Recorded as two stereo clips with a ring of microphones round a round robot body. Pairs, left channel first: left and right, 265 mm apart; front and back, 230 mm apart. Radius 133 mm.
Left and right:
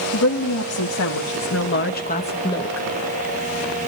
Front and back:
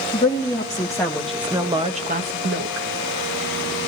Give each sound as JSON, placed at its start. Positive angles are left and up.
{"t": 0.1, "sound": "a woman speaking", "azimuth_deg": 60, "distance_m": 2.0}